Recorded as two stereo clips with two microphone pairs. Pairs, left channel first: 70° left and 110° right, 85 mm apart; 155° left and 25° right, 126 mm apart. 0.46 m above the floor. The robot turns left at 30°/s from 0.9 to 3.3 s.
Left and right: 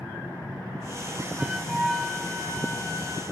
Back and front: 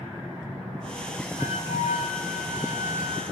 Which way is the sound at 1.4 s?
Straight behind.